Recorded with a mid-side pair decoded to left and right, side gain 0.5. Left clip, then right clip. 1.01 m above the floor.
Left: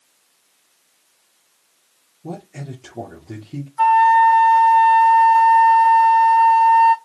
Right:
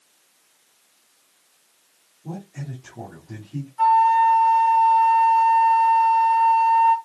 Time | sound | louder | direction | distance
2.2 | a man speaking | left 4 dB | 60° left | 3 m
3.8 | a flute | left 4 dB | 55° left | 1.9 m